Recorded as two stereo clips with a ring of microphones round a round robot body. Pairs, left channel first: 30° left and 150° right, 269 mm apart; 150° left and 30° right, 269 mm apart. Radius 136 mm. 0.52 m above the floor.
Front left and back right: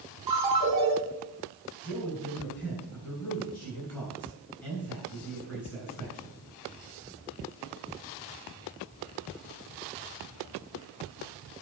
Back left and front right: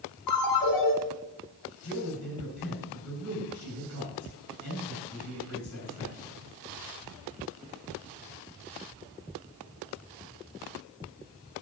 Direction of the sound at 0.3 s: 135° left.